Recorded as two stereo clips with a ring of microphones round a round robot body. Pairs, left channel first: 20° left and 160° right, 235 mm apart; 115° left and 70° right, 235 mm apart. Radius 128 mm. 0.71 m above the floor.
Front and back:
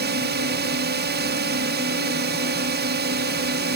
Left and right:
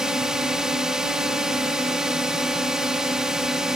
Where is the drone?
155° right.